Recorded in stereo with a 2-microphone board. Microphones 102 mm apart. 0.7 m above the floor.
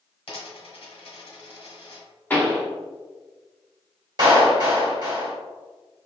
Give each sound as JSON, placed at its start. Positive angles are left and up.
{"t": 0.3, "sound": "a dropped coin", "side_deg": 75, "distance_m": 1.3}
{"t": 2.3, "sound": "a pop", "side_deg": 15, "distance_m": 1.2}
{"t": 4.2, "sound": "a clap", "side_deg": -45, "distance_m": 1.7}